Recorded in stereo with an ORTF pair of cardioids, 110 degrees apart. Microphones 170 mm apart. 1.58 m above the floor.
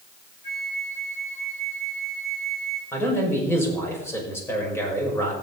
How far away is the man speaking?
About 6 m.